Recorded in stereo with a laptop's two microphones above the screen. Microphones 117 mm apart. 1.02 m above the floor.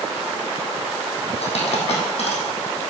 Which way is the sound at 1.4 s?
65° left (ahead or behind).